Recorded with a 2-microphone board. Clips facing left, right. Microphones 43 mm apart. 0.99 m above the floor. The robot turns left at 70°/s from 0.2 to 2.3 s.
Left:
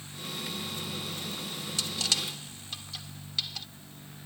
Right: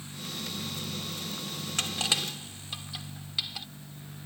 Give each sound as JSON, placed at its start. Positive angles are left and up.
{"t": 1.8, "sound": "crushing", "side_deg": -50}